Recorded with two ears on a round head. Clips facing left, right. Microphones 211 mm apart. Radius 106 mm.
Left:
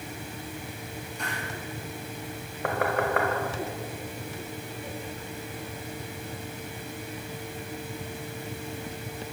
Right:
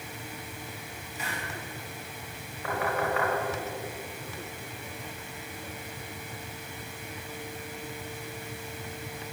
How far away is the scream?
No scream in this recording.